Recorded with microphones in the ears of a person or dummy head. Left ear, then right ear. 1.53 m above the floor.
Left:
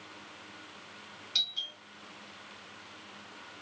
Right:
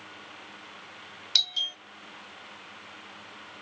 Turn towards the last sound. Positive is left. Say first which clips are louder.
# right 6 dB
turn(degrees=-45)  # may be behind; listen again after turning